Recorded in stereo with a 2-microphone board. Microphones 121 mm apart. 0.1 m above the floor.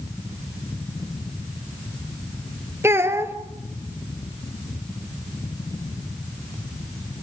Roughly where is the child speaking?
Right.